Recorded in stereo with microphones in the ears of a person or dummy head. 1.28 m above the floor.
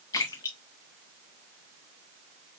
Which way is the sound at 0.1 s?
20° left (ahead or behind).